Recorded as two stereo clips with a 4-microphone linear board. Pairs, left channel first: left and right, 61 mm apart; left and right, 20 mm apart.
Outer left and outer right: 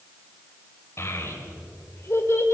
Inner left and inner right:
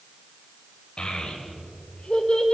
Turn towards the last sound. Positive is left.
turn(degrees=45)  # may be behind; listen again after turning